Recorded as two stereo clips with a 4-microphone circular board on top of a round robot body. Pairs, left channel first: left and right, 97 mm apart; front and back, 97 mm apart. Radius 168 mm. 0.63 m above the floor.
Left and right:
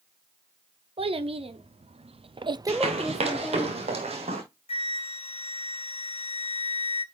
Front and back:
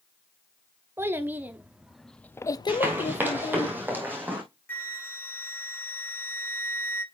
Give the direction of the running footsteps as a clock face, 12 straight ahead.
4 o'clock.